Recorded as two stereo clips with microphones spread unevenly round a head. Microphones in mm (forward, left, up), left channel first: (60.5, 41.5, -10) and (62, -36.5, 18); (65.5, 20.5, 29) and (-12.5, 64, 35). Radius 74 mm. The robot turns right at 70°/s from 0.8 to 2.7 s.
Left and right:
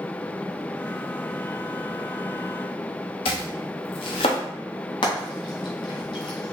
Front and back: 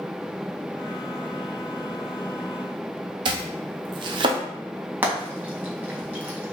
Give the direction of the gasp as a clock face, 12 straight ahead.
No gasp in this recording.